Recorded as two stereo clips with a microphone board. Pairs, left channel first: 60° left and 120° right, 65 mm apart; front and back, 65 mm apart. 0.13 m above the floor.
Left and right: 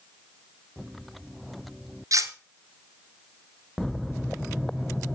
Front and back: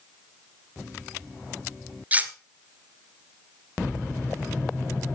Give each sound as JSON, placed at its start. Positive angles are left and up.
{"t": 2.1, "sound": "cutlery clinking", "azimuth_deg": -120, "distance_m": 1.0}